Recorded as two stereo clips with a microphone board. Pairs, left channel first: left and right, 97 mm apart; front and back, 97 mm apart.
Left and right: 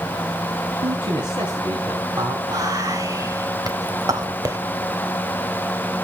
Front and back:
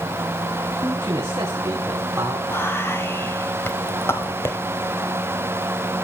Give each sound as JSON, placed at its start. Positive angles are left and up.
{"t": 0.8, "sound": "a man speaking", "azimuth_deg": -120, "distance_m": 3.0}
{"t": 2.5, "sound": "whispering", "azimuth_deg": -55, "distance_m": 1.8}